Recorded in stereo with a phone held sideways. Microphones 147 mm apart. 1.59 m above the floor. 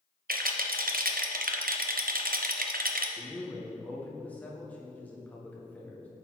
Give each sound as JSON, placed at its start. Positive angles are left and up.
{"t": 0.3, "sound": "a rattle", "side_deg": -80, "distance_m": 0.6}
{"t": 3.2, "sound": "a man speaking", "side_deg": 10, "distance_m": 1.4}